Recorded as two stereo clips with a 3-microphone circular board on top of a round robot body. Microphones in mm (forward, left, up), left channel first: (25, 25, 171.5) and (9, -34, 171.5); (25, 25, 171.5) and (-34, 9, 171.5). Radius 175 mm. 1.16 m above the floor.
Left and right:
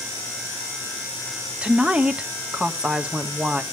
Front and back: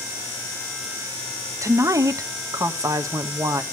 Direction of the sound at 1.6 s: 175° right.